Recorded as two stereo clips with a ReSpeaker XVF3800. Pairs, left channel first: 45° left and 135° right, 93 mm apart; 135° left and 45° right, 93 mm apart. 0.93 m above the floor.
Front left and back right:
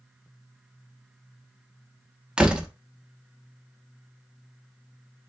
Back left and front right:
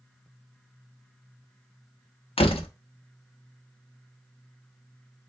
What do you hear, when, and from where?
2.4 s a door slam: 145° left, 0.7 m